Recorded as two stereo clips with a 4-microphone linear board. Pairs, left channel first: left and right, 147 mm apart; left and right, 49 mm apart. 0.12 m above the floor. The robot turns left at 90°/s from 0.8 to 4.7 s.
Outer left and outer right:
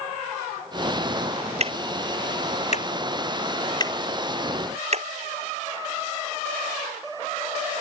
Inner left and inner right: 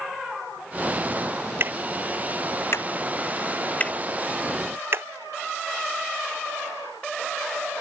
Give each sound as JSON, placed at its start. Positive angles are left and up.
{"t": 1.6, "sound": "ticking", "side_deg": -50}